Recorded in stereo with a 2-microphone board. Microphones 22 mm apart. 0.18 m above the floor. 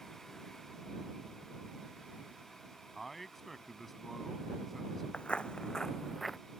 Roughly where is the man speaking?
Centre.